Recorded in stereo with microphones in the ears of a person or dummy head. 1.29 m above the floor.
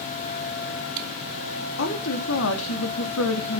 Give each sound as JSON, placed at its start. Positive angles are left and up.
{"t": 1.8, "sound": "a woman speaking", "side_deg": 60, "distance_m": 2.5}